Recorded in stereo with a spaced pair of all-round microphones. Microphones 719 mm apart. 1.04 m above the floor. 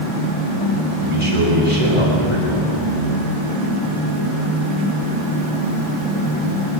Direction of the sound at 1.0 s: 45° right (ahead or behind).